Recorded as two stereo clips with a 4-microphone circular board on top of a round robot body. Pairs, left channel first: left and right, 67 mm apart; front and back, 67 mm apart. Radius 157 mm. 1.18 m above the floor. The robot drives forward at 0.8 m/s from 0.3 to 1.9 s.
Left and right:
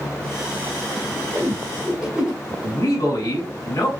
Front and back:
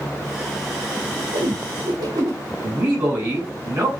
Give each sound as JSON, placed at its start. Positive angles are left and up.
{"t": 1.3, "sound": "a whoosh", "azimuth_deg": -170, "distance_m": 1.4}
{"t": 2.6, "sound": "a man speaking", "azimuth_deg": 125, "distance_m": 3.5}